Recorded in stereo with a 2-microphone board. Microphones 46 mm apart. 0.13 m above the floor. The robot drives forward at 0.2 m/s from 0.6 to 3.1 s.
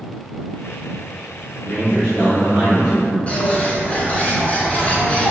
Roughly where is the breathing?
No breathing in this recording.